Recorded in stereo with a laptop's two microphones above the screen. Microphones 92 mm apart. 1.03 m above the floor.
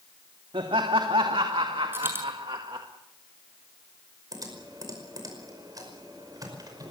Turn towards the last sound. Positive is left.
turn(degrees=-45)  # may be behind; listen again after turning